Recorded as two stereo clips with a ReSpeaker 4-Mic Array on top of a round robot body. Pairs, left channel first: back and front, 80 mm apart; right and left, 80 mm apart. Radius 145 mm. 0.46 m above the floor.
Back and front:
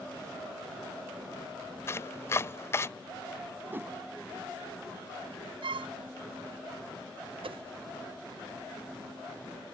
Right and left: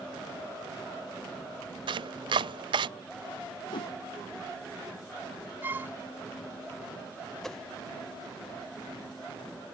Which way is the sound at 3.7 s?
65° right.